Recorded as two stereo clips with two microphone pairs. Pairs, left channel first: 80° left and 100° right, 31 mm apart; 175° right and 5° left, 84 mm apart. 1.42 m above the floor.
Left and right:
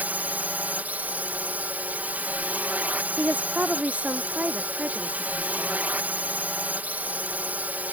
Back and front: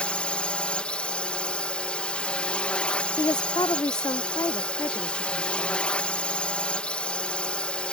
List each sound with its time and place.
0.0 s a drone: 95° right
3.2 s a woman speaking: 140° right